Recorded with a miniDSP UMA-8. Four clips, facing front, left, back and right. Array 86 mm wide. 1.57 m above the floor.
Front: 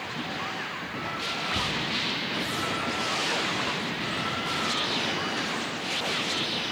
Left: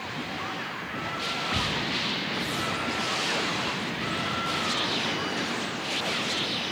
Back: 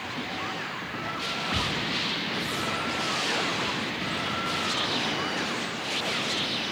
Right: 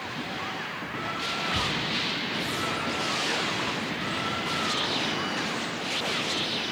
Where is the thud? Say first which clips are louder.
Left 1 dB, back 1 dB; 150° left, 5.5 m.